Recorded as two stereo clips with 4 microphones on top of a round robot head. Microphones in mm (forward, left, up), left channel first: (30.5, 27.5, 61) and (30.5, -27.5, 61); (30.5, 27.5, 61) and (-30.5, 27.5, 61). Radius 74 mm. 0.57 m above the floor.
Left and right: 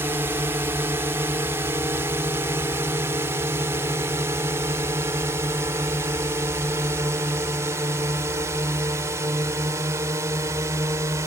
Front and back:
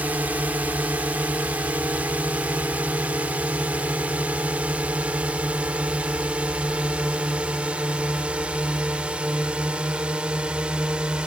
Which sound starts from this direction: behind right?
A drone, at 0.0 s.